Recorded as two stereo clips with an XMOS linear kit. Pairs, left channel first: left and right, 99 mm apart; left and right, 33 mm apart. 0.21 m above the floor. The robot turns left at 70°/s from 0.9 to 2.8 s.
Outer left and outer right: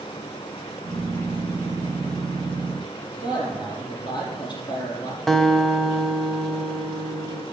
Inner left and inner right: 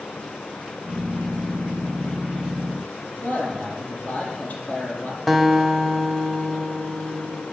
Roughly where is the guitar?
Centre.